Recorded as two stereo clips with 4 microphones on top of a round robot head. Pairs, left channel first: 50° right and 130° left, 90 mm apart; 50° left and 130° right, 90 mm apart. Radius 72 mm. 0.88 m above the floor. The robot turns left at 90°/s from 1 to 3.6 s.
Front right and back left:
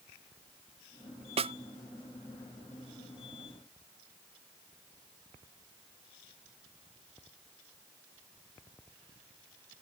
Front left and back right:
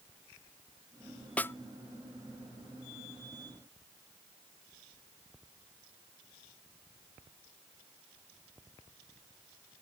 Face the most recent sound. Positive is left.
turn(degrees=-75)